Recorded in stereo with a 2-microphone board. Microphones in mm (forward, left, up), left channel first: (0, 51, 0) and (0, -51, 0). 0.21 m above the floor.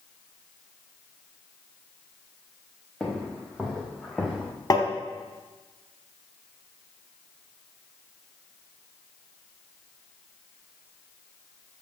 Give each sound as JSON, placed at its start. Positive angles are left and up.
{"t": 3.0, "sound": "footsteps", "side_deg": 5, "distance_m": 2.0}
{"t": 4.7, "sound": "tapping", "side_deg": 35, "distance_m": 1.1}